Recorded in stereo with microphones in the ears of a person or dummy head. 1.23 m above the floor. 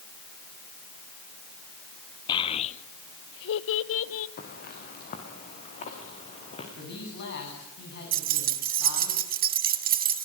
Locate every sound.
2.3 s a child speaking: 25° left (ahead or behind), 0.9 m; by 4.3 s 70° left (ahead or behind), 1.2 m
4.4 s footsteps: 50° left (ahead or behind), 5 m; by 6.7 s 35° left (ahead or behind), 8 m
6.8 s a man speaking: 60° left (ahead or behind), 10 m
8.1 s keys jangling: 50° right (ahead or behind), 1.2 m